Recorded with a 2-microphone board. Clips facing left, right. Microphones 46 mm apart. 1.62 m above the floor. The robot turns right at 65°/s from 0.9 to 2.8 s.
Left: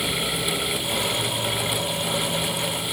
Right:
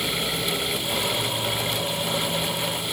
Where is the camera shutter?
I don't hear a camera shutter.